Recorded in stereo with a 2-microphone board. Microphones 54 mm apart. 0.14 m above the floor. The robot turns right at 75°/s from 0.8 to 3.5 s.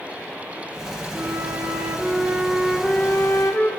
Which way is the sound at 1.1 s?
115° right.